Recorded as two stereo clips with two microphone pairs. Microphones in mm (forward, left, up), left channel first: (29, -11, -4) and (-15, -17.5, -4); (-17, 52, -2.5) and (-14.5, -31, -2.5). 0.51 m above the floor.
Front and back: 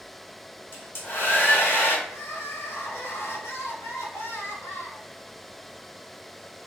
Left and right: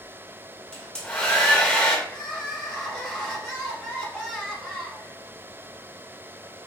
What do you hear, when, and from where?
0.7 s a hair dryer: 15° left, 1.0 m
2.1 s crying: 10° left, 0.9 m